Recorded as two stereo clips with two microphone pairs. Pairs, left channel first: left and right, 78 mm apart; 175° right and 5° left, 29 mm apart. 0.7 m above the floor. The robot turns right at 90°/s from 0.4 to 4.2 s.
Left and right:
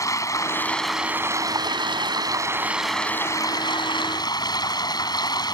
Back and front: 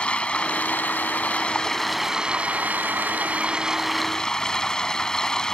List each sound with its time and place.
0.0 s running water: 140° left; by 5.5 s 120° left